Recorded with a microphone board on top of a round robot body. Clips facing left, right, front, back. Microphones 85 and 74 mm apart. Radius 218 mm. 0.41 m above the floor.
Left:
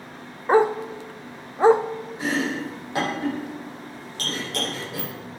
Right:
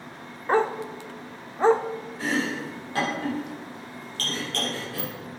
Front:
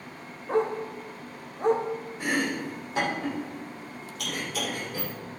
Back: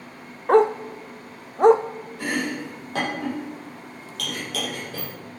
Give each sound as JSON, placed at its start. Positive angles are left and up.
{"t": 0.5, "sound": "a dog barking", "azimuth_deg": 170, "distance_m": 0.5}
{"t": 2.2, "sound": "chopping", "azimuth_deg": 165, "distance_m": 6.0}